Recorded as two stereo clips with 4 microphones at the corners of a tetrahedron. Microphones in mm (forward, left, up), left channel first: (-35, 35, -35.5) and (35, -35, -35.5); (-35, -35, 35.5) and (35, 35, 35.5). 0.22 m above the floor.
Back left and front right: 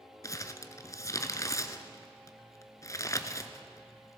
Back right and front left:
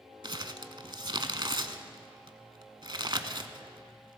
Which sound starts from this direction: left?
Crumpling, at 0.2 s.